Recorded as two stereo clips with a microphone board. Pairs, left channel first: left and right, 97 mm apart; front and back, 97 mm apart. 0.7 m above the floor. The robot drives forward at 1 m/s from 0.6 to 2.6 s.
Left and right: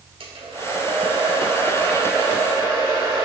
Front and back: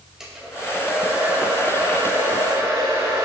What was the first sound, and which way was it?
A hair dryer, 95° right.